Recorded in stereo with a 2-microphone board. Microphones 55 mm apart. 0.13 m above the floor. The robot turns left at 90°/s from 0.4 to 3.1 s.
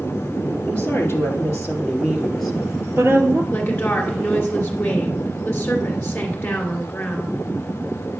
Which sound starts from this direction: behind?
A woman speaking, at 0.7 s.